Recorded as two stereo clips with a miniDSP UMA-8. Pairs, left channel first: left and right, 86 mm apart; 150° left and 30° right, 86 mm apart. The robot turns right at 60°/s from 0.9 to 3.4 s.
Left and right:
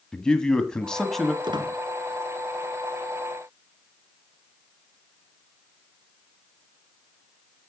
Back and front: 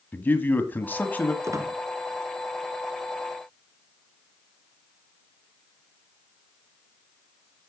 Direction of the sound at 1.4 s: 80° right.